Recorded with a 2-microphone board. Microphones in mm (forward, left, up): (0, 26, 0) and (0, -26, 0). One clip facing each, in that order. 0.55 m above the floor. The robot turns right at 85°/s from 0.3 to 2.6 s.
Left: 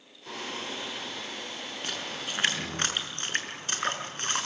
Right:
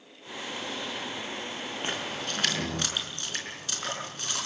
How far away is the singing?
About 7 m.